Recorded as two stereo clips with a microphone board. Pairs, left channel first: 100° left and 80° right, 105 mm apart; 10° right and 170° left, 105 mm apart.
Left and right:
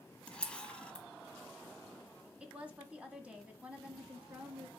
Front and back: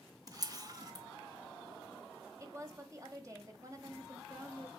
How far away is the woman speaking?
About 1.4 m.